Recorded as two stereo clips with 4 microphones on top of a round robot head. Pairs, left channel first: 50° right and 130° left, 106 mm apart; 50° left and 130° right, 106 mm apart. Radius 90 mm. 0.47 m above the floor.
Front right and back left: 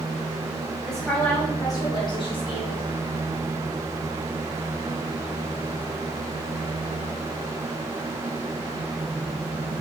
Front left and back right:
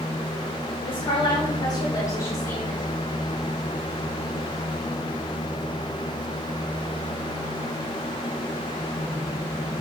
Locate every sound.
0.8 s a woman speaking: 40° left, 1.7 m; by 2.8 s 20° right, 3 m